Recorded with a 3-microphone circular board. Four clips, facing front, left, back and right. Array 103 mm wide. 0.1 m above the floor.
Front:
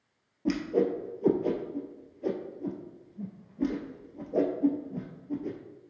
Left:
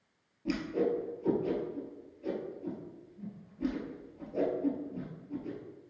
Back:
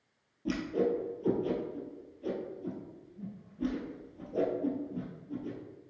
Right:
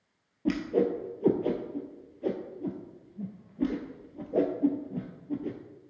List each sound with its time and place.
0.5 s a whoosh: 55° right, 1.1 m